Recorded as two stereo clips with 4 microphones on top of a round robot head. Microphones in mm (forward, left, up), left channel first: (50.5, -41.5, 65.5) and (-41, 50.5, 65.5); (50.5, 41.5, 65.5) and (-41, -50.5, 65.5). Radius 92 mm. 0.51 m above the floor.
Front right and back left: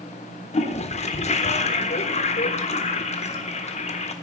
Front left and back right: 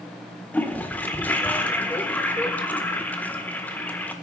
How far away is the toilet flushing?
About 1.6 m.